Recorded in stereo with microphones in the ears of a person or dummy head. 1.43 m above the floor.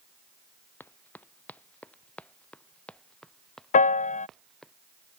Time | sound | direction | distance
0.8 | running footsteps | 10° left (ahead or behind) | ?
3.7 | a piano | 40° left (ahead or behind) | ?